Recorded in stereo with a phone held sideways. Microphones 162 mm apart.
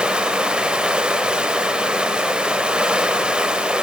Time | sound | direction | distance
0.0 | running water | 5° right (ahead or behind) | 0.9 m